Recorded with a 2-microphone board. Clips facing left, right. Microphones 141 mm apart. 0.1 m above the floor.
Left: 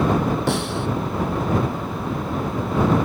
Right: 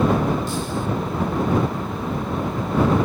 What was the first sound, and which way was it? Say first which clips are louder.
A snare drum: left 2 dB; 65° left (ahead or behind).